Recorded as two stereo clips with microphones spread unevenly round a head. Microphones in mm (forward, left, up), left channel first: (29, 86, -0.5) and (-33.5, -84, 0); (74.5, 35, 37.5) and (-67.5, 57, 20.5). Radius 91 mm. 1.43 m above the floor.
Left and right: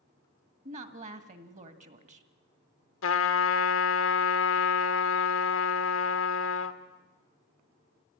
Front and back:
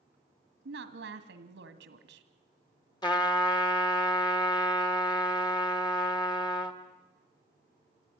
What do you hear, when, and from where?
0.7 s a woman speaking: 165° right, 1.9 m
3.0 s a trumpet: 50° left, 1.6 m